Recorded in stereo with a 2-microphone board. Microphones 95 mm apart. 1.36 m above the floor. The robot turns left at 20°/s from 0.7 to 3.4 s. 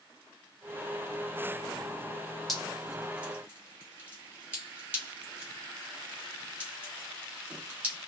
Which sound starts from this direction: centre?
Dripping, at 2.5 s.